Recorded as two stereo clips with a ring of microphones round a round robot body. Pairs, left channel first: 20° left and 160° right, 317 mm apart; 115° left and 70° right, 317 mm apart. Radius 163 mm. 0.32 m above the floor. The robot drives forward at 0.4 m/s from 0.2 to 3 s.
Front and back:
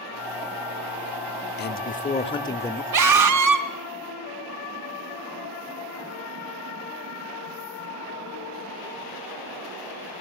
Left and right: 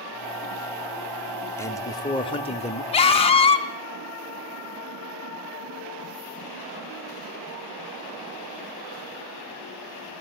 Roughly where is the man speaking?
Ahead left.